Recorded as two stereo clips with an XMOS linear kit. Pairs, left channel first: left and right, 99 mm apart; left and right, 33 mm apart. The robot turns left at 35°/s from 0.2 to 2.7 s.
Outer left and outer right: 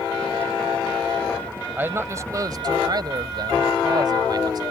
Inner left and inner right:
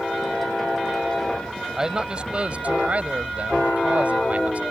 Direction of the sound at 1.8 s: 25° right.